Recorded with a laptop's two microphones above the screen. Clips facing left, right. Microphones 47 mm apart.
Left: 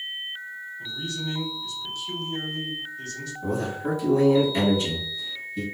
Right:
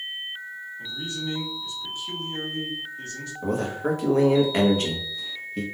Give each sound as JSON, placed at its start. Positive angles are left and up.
{"t": 0.8, "sound": "a man speaking", "side_deg": -30, "distance_m": 1.6}
{"t": 3.4, "sound": "a man speaking", "side_deg": -55, "distance_m": 1.1}